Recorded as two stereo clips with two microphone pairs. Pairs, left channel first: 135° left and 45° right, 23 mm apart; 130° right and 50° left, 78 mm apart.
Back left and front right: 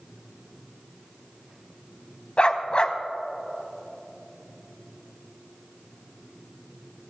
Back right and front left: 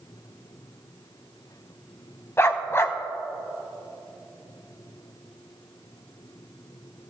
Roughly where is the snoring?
I don't hear snoring.